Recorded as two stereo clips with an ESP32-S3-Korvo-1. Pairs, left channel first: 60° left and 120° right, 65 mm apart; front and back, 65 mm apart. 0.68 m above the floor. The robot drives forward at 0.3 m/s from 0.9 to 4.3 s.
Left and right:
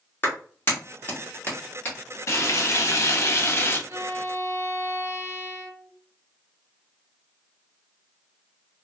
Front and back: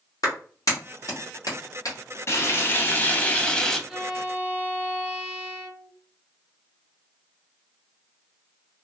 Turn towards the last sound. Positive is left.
turn(degrees=-110)